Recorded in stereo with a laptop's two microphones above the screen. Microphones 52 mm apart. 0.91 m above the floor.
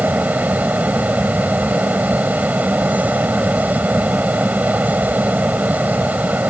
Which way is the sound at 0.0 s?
30° right (ahead or behind).